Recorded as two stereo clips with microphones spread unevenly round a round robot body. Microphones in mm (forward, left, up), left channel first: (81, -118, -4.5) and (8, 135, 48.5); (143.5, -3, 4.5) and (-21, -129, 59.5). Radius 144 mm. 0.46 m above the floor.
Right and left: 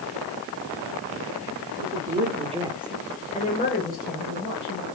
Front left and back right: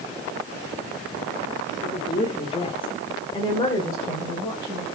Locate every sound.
1.8 s a woman speaking: 85° left, 1.6 m; by 4.8 s 35° right, 3.5 m